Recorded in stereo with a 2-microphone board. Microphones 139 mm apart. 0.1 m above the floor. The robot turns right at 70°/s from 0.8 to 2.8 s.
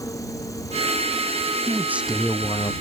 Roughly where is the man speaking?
Ahead right.